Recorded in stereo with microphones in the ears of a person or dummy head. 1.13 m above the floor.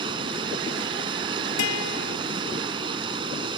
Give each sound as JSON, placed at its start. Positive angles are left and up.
{"t": 0.0, "sound": "running water", "side_deg": -25}
{"t": 1.6, "sound": "a guitar", "side_deg": 65}